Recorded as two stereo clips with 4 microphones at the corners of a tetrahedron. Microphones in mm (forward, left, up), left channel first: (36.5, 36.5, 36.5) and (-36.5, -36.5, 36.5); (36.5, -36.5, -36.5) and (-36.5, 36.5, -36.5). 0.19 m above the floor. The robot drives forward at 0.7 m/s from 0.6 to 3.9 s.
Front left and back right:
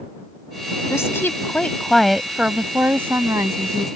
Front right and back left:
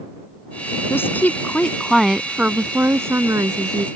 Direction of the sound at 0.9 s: 5° left.